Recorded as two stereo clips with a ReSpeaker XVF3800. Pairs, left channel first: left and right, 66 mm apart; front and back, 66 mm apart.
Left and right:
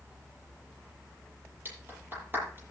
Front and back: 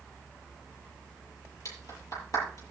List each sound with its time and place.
1.6 s a clap: 35° right, 9 m